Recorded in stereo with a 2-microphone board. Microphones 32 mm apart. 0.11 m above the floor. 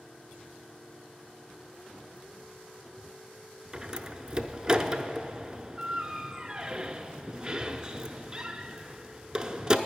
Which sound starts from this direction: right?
A door slam, at 3.7 s.